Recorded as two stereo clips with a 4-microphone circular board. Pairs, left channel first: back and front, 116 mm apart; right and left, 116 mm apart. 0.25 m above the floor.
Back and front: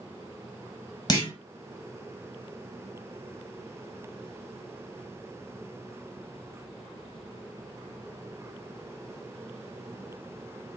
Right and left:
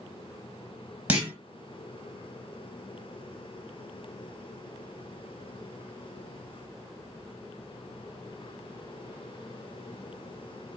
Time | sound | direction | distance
1.1 | a clunk | 160° left | 0.8 m